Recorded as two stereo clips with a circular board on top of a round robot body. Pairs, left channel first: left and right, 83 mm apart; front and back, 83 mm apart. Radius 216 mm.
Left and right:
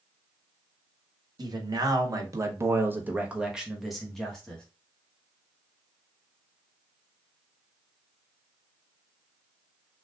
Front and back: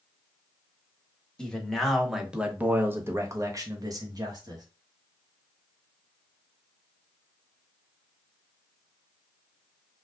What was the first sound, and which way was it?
A man speaking, 80° right.